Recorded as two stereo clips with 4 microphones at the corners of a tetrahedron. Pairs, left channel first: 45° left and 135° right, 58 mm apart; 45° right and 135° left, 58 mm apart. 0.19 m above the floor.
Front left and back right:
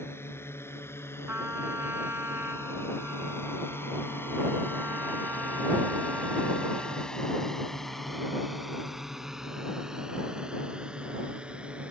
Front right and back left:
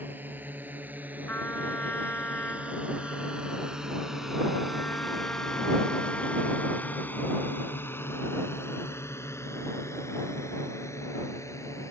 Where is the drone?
85° left; by 11.9 s 65° right.